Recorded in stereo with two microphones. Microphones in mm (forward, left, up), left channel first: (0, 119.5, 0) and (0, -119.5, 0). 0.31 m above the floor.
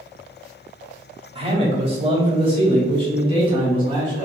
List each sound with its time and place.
1.4 s a man speaking: 25° right (ahead or behind), 1.0 m; by 4.3 s 20° right (ahead or behind), 2 m